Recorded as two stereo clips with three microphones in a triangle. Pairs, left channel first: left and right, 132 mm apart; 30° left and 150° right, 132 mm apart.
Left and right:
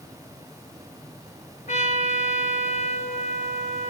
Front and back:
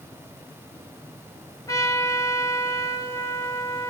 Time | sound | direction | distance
1.7 | a trumpet | 90° left | 3.5 m